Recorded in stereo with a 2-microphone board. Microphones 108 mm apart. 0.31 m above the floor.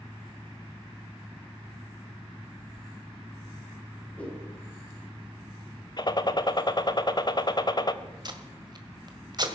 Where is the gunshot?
40° left (ahead or behind), 1.0 m.